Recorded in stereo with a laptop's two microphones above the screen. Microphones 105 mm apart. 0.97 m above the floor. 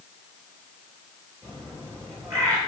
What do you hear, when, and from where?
1.4 s a bird: 25° right (ahead or behind), 3 m